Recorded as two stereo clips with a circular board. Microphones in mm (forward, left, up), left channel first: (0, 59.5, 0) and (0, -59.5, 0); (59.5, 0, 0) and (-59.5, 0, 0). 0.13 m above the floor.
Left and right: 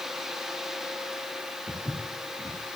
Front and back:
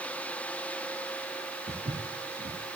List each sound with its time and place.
1.7 s footsteps: 175° left, 4 m